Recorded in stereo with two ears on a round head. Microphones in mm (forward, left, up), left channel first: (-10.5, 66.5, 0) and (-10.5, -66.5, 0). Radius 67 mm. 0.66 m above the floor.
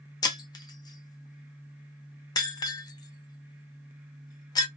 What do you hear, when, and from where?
0.2 s breaking glass: 25° left (ahead or behind), 0.7 m